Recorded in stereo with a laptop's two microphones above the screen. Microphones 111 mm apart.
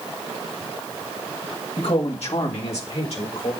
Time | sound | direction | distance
1.8 | a man speaking | 55° left (ahead or behind) | 1.5 m